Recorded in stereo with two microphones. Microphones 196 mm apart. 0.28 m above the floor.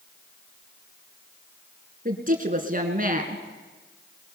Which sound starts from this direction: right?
A woman speaking, at 2.0 s.